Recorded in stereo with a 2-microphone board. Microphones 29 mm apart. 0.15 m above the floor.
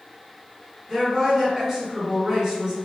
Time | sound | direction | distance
0.9 | a woman speaking | 20° right (ahead or behind) | 1.4 m